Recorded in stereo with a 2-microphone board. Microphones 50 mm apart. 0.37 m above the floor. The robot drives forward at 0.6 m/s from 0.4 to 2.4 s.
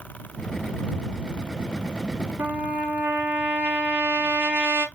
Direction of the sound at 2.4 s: 45° right (ahead or behind).